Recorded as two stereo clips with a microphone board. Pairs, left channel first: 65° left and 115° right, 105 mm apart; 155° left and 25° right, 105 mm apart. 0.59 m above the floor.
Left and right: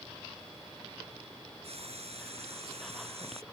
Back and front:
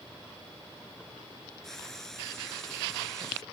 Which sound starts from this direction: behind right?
Frying, at 1.6 s.